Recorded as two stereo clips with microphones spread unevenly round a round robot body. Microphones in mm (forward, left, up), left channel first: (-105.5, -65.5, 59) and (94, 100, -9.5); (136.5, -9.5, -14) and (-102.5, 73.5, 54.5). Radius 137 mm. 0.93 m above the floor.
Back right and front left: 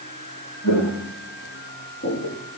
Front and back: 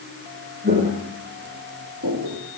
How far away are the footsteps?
About 3 m.